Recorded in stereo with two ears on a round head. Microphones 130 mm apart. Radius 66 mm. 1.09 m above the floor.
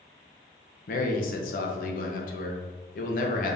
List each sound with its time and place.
0.9 s a man speaking: 65° left (ahead or behind), 0.9 m